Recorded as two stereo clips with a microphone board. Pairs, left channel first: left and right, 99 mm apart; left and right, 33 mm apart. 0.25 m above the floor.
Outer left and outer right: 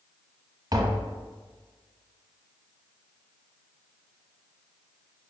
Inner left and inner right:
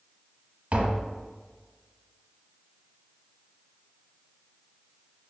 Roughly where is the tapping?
Right.